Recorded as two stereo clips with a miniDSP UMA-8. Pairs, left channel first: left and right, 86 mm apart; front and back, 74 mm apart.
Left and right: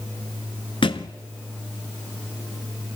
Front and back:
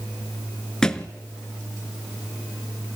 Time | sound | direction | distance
0.8 | a thud | 80° left | 0.8 m